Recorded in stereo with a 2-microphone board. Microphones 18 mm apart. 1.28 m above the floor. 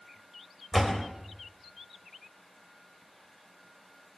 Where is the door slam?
5° right (ahead or behind), 3.5 m.